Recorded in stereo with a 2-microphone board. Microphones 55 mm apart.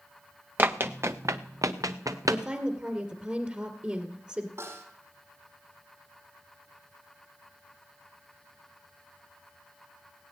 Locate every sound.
0.6 s running footsteps: 35° right (ahead or behind), 1.0 m; by 2.4 s 85° right, 1.4 m
2.3 s a woman speaking: 25° right (ahead or behind), 2 m
4.6 s a snare drum: 50° right (ahead or behind), 4.5 m